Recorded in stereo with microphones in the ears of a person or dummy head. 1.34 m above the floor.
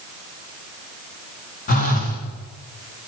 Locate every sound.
1.7 s a phone buzzing: 40° left (ahead or behind), 3 m